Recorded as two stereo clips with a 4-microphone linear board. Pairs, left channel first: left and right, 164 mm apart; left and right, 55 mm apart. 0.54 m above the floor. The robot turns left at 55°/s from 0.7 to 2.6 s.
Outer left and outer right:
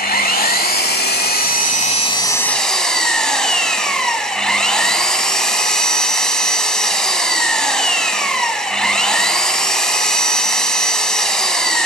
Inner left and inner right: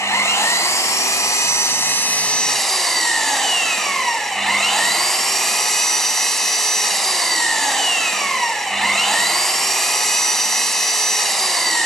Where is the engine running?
110° left, 0.8 m; by 11.9 s 5° left, 0.8 m.